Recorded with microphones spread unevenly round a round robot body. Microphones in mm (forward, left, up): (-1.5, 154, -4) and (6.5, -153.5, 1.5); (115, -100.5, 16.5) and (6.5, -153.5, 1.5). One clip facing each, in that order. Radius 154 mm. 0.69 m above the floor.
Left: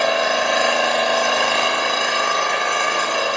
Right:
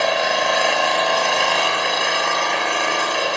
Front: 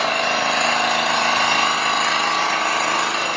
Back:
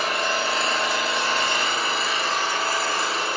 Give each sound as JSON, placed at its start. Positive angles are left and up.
{"t": 0.0, "sound": "an engine running", "azimuth_deg": 5, "distance_m": 3.0}